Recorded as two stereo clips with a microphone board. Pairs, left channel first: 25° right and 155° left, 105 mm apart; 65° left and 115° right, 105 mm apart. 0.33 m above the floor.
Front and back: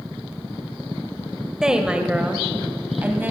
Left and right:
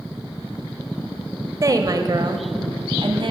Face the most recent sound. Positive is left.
turn(degrees=-135)